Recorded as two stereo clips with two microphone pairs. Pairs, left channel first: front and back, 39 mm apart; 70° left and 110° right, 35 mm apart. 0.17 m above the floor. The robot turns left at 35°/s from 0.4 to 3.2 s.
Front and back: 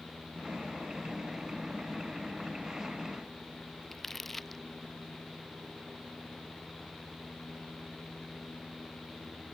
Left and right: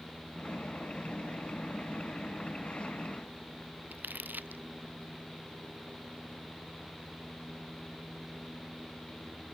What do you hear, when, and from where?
3.9 s crumpling: 85° right